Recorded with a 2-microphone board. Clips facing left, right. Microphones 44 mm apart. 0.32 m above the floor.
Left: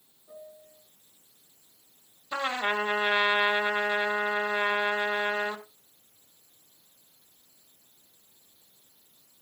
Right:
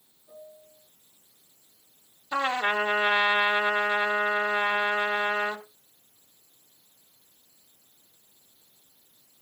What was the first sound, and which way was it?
A piano, 20° left (ahead or behind).